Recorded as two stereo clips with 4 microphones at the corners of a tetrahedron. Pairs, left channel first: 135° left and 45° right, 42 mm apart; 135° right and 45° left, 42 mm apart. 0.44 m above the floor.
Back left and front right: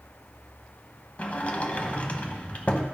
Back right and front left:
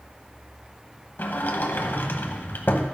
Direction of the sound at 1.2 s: 165° right.